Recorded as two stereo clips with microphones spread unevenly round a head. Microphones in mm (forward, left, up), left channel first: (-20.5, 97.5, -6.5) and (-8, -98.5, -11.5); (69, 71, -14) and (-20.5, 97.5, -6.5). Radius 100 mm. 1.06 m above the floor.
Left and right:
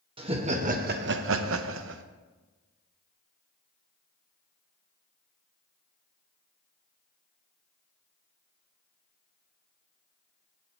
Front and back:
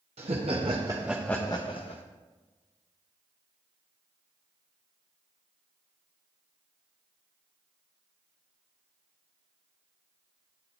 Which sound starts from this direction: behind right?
Laughter, at 0.2 s.